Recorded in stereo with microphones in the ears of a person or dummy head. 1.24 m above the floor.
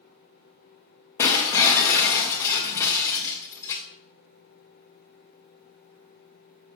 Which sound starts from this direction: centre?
Breaking glass, at 1.2 s.